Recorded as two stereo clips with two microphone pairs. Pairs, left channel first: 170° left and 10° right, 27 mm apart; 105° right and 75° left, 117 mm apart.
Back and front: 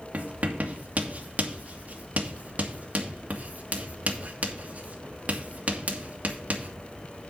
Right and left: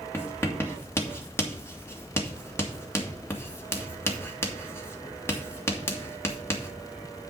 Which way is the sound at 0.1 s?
35° right.